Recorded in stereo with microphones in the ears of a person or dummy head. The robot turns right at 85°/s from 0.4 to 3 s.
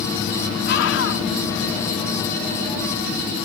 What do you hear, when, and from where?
0.7 s a scream: 70° left; by 1.2 s 120° left